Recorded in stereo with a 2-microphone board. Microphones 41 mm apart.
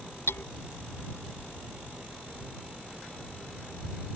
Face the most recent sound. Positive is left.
turn(degrees=80)